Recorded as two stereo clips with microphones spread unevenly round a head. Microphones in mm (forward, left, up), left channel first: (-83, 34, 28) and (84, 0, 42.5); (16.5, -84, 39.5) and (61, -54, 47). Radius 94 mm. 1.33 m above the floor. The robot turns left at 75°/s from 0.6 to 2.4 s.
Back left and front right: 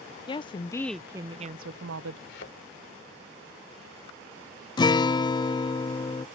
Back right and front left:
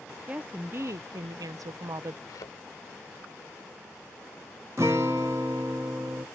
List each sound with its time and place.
0.3 s a woman speaking: 105° left; by 2.2 s 15° right
2.3 s a thud: 155° right; by 2.6 s 165° right
4.8 s a guitar: 100° left